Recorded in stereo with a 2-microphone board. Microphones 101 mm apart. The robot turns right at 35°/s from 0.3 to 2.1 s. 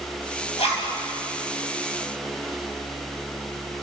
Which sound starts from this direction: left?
A zipper, at 0.6 s.